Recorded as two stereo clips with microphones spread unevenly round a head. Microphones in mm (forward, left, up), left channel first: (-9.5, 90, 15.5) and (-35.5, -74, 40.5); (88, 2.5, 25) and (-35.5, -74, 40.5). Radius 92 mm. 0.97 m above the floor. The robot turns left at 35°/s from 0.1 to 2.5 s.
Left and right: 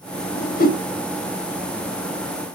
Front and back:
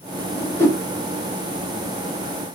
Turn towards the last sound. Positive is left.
turn(degrees=35)